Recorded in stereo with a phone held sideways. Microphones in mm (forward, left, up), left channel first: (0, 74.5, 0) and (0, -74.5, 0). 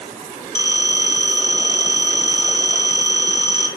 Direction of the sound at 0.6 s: 25° right (ahead or behind).